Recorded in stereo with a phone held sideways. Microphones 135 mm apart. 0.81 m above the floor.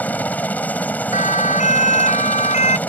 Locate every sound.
0.0 s a helicopter: 10° left (ahead or behind)
1.1 s a siren: 70° left (ahead or behind); by 2.8 s 65° left (ahead or behind)